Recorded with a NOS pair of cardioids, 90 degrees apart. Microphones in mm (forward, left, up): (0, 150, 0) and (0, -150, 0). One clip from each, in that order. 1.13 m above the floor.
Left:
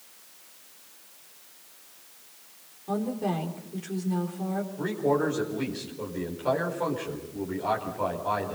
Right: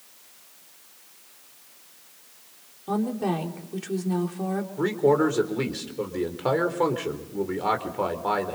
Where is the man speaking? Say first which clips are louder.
Right 5 dB; 60° right, 4 m.